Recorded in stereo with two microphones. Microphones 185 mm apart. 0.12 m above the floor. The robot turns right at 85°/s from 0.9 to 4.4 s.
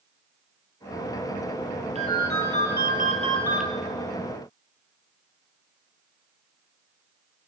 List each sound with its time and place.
1.9 s a ringtone: 140° right, 1.2 m; by 3.7 s 5° left, 1.2 m